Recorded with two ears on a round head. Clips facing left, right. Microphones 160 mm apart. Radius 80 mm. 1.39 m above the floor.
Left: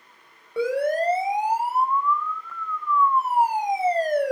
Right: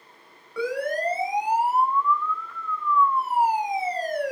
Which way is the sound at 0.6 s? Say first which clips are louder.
Left 4 dB; 25° left (ahead or behind).